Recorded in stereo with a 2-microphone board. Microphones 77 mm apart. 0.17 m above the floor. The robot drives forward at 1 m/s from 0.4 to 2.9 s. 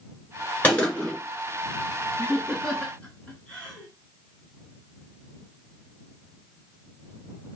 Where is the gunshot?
20° left (ahead or behind), 2.5 m.